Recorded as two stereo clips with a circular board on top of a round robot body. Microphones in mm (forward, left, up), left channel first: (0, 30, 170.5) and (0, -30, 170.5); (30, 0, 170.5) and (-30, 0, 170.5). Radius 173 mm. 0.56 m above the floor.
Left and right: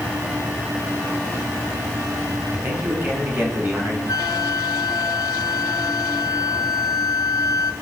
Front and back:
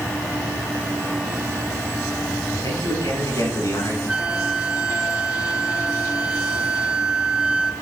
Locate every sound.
2.5 s a man speaking: 25° right, 7.5 m; by 4.0 s 30° right, 6.5 m
4.1 s a flute: 110° left, 2 m